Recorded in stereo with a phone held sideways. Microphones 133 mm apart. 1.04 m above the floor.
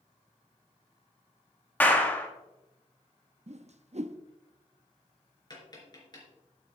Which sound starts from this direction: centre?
A clap, at 1.8 s.